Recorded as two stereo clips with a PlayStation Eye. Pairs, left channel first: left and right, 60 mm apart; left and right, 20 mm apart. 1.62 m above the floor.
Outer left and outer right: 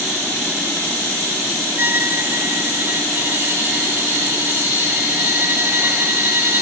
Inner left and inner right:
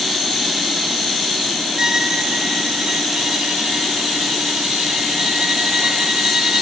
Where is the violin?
35° right (ahead or behind).